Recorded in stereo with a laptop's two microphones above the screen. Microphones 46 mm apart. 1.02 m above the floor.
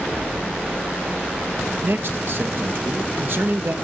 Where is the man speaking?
55° right (ahead or behind), 0.7 m.